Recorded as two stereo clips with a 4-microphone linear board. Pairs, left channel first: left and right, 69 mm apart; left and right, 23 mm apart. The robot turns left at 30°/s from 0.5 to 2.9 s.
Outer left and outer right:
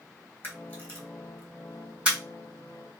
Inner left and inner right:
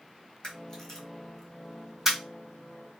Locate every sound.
0.4 s a camera shutter: 30° left (ahead or behind), 1.5 m; by 2.2 s 20° right (ahead or behind), 1.5 m